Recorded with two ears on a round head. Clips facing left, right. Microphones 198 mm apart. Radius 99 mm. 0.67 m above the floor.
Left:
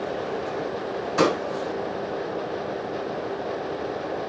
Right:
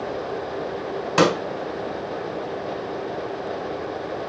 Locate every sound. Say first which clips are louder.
1.2 s a pop: right 3 dB; 75° right (ahead or behind), 1.5 m